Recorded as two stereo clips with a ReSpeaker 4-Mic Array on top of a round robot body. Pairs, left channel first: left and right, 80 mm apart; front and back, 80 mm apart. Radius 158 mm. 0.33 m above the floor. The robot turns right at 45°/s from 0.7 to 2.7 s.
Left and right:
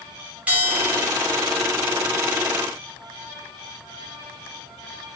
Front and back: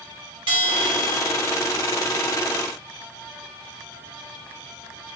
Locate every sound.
0.5 s a bell: 165° right, 1.2 m; by 1.6 s 125° right, 1.2 m